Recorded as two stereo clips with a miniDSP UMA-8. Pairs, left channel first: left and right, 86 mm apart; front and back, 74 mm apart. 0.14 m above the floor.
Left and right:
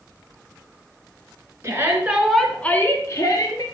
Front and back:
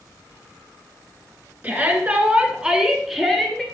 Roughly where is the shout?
Behind right.